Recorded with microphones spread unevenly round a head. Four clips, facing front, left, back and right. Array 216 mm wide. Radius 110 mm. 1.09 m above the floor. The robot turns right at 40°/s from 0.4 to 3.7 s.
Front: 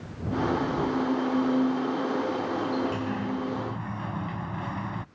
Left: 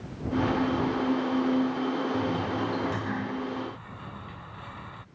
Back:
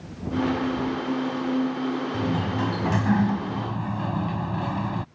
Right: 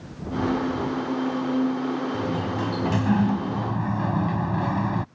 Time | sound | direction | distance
2.1 | a sliding door | 170° right | ?